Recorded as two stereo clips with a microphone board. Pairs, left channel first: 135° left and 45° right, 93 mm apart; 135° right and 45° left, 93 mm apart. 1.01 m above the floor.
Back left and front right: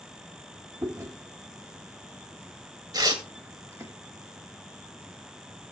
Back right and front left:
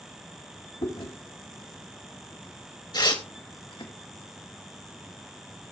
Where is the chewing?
105° right, 3 m.